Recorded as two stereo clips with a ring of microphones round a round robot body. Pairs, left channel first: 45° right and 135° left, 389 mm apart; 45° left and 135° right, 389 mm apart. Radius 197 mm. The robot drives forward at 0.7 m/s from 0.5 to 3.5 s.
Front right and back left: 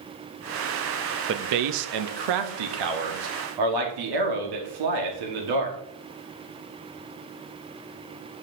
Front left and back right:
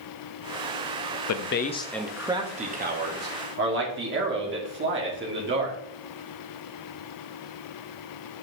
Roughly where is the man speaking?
Left.